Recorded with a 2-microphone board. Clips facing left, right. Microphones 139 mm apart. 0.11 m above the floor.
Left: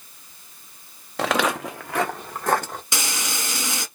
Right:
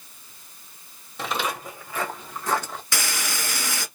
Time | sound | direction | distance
1.2 | footsteps | 75° left (ahead or behind) | 0.5 m
2.9 | frying | 20° left (ahead or behind) | 0.9 m